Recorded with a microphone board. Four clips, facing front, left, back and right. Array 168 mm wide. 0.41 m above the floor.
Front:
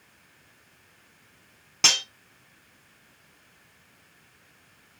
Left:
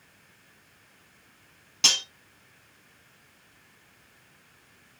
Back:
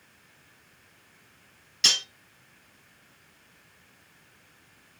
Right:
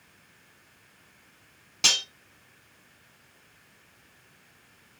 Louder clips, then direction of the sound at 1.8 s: Right 1 dB, front 4 dB; 5° left.